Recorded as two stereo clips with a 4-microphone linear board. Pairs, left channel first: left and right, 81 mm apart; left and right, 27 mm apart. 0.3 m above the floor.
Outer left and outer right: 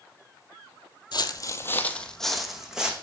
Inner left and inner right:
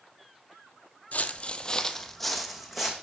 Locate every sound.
1.1 s footsteps: 65° left (ahead or behind), 0.5 m; by 2.9 s 10° right (ahead or behind), 1.2 m